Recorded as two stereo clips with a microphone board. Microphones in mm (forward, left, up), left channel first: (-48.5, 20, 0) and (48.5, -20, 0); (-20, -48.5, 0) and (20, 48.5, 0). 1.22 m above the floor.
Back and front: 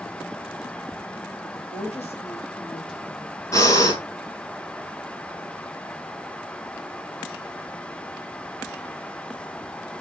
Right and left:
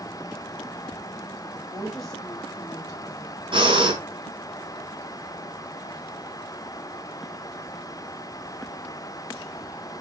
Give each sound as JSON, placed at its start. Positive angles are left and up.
{"t": 1.6, "sound": "a woman speaking", "azimuth_deg": 145, "distance_m": 2.5}
{"t": 3.5, "sound": "breathing", "azimuth_deg": 100, "distance_m": 3.0}